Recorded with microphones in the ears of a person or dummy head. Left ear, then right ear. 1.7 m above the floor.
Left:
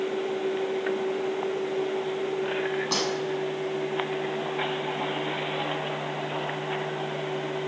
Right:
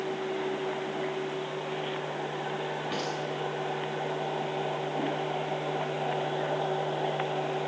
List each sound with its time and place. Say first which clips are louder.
2.9 s a gunshot: left 7 dB; 75° left (ahead or behind), 7 m